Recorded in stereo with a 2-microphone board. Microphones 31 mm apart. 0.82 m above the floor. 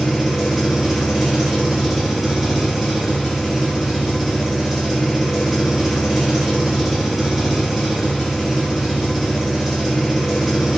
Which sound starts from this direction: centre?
An engine running, at 0.0 s.